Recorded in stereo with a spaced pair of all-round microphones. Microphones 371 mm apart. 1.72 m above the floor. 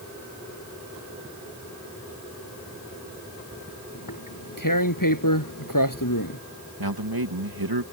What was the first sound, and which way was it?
Tearing paper, 60° left (ahead or behind).